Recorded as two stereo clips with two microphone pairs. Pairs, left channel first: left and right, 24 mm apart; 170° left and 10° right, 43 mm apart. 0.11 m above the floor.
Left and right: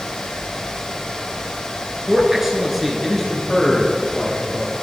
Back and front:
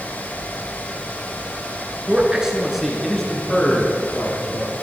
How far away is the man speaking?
About 1.2 m.